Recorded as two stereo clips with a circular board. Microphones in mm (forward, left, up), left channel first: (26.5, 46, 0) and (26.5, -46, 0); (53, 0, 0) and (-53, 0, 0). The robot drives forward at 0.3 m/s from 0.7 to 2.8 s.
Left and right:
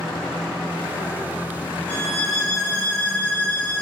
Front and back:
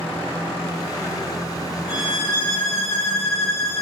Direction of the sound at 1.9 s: 10° left.